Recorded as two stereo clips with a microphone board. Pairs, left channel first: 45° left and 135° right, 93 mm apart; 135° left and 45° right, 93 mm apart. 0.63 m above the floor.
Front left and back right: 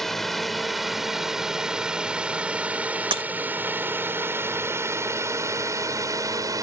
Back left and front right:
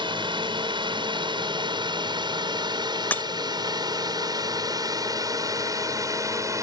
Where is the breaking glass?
155° right.